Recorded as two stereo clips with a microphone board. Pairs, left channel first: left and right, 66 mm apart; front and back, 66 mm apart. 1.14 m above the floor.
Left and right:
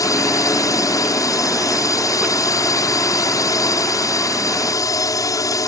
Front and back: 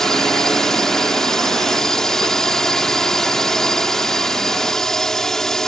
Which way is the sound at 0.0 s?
80° left.